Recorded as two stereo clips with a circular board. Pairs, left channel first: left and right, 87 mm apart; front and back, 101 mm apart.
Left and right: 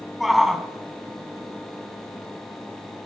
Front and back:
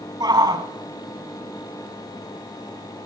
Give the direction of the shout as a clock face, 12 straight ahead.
6 o'clock.